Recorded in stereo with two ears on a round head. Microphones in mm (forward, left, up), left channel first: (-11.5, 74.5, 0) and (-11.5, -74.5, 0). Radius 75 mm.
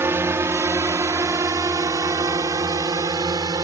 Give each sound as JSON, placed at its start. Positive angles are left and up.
{"t": 0.0, "sound": "a drone", "side_deg": -15}